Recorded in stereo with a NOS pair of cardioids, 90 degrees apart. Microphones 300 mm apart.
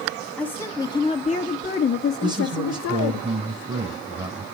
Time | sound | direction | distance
0.4 | a woman speaking | 5° left | 2.5 m
2.2 | a man speaking | 15° right | 8.5 m